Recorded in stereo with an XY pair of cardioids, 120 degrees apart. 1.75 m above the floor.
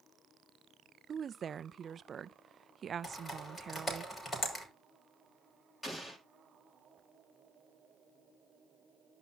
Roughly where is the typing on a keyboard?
Ahead.